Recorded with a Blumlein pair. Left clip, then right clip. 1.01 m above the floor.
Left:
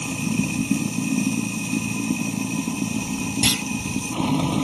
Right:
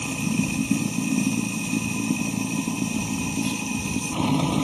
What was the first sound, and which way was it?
Running water, 5° left.